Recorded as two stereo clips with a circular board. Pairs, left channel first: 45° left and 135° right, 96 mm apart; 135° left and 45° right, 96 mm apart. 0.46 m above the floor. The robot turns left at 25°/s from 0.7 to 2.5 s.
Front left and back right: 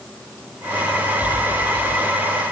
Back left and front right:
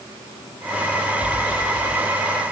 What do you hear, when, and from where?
Only background noise.